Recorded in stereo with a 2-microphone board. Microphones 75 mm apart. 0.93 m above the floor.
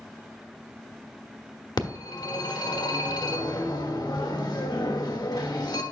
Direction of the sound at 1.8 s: 65° left (ahead or behind).